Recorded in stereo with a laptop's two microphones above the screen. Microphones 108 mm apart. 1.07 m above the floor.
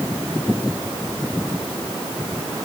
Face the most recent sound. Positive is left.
No sound to turn to.